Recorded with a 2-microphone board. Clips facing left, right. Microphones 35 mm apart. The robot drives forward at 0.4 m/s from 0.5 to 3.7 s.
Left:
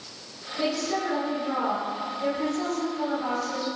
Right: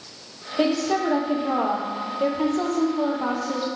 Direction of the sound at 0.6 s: 60° right (ahead or behind).